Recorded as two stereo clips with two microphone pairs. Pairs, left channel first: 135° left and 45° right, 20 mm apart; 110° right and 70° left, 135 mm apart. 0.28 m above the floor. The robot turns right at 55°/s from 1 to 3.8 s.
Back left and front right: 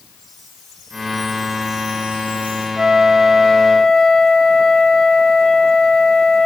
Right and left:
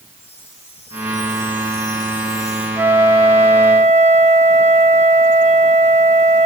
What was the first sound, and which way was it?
A chime, 150° right.